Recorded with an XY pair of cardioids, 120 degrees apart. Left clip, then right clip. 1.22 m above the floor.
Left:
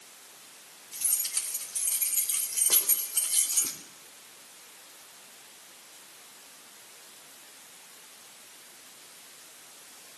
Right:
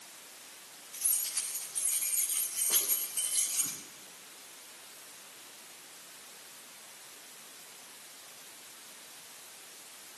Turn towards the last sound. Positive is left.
turn(degrees=75)